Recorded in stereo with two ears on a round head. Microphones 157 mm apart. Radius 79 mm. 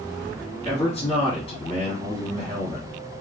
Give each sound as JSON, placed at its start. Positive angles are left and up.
{"t": 0.7, "sound": "a man speaking", "side_deg": 30, "distance_m": 1.3}